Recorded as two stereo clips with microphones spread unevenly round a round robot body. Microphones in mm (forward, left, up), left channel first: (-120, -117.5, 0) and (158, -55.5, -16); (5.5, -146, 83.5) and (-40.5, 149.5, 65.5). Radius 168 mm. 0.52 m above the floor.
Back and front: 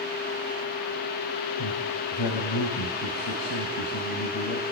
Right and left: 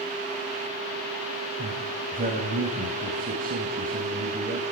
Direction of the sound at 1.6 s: 160° left.